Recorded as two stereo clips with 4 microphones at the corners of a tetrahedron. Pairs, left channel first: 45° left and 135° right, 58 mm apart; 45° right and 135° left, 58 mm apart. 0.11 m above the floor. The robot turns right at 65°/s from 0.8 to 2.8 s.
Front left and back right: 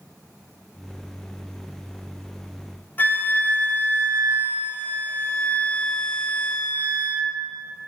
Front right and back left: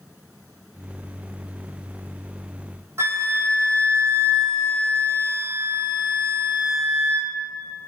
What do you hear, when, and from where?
3.0 s a flute: 100° left, 0.6 m